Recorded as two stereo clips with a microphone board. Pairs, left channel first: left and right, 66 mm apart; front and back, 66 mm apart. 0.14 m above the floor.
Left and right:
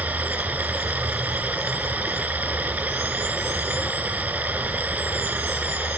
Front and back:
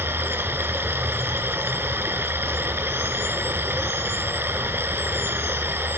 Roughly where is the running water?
Behind right.